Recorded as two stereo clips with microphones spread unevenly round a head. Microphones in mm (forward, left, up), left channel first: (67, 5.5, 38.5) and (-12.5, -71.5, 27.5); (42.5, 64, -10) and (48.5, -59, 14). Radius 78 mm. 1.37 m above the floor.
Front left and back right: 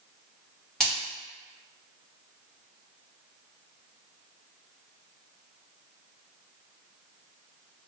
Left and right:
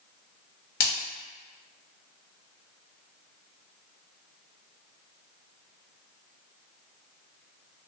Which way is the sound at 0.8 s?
130° left.